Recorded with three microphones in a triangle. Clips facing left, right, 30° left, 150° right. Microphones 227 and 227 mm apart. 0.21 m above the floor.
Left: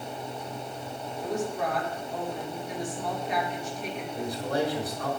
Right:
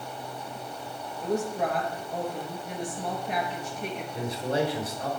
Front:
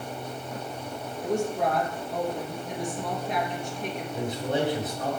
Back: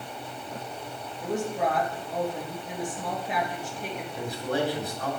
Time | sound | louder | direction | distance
1.2 | a woman speaking | right 2 dB, front 2 dB | 65° right | 3 m
4.1 | a man speaking | right 1 dB, front 1 dB | 35° right | 2.5 m